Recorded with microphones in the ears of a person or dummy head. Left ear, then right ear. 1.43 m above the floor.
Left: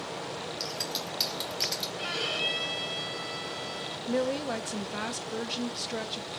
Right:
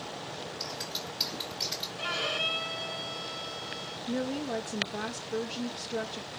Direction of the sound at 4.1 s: 30° left (ahead or behind).